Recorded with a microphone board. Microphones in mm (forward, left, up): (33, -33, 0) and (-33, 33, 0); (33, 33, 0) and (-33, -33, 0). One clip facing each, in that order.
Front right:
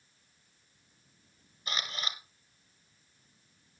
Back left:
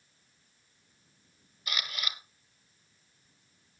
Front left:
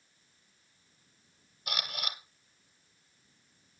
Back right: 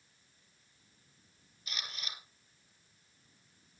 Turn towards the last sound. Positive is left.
turn(degrees=15)